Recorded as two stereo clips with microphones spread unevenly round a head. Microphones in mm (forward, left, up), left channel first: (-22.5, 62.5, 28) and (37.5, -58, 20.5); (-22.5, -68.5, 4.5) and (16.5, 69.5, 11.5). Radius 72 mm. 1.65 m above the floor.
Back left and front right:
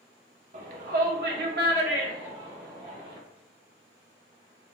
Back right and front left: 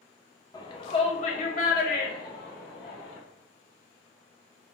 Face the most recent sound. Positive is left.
turn(degrees=-90)